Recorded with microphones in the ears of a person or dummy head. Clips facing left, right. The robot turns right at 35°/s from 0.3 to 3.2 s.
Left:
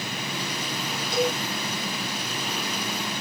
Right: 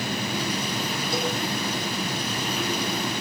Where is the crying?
No crying in this recording.